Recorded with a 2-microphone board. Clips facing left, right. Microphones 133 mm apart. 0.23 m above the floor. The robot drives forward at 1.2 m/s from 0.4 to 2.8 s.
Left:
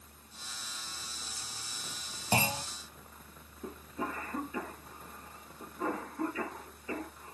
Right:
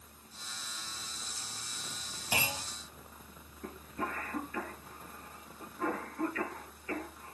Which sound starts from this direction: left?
A clunk, at 2.3 s.